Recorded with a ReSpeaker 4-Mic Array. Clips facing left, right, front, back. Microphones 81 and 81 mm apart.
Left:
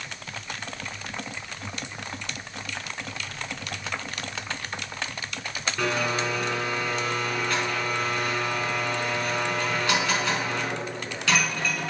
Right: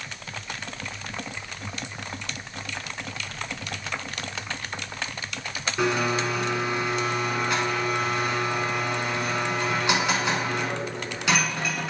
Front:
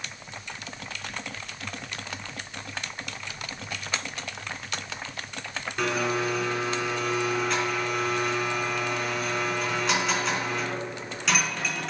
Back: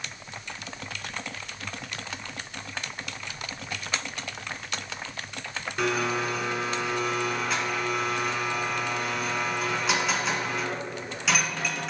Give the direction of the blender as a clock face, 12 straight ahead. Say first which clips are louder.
Right 3 dB, even; 3 o'clock.